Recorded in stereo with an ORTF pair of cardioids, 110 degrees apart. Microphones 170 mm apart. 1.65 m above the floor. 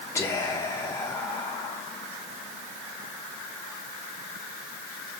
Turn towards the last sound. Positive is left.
turn(degrees=15)